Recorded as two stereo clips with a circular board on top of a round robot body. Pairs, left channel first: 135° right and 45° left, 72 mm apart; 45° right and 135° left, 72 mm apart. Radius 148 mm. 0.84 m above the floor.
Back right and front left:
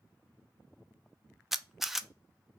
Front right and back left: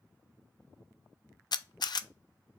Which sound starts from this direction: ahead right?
A camera shutter, at 1.5 s.